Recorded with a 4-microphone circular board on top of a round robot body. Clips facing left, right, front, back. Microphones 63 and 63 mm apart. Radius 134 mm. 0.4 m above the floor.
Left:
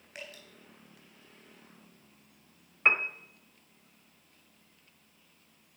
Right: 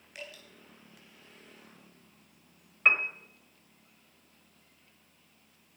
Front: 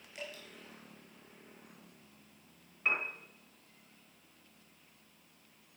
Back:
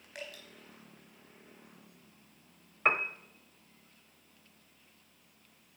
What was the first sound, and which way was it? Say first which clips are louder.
Dripping: even, even; 140° left.